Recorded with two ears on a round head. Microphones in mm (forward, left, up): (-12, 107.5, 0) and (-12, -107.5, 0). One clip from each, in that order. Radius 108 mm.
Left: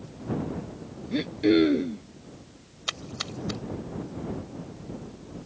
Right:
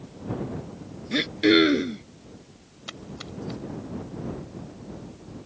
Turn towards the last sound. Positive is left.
turn(degrees=45)  # may be behind; listen again after turning